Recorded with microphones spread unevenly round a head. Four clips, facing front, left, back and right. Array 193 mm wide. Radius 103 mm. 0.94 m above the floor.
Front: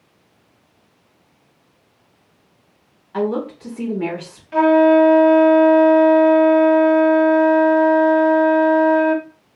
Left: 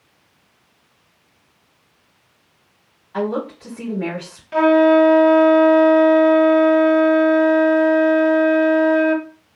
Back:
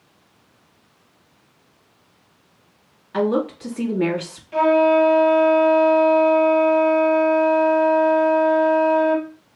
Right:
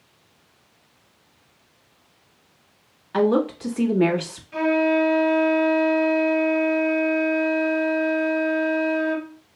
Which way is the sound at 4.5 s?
70° left.